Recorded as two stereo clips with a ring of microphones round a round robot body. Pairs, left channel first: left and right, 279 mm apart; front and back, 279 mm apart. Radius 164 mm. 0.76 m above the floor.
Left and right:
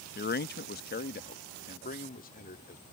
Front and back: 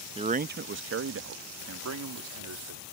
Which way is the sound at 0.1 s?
120° left.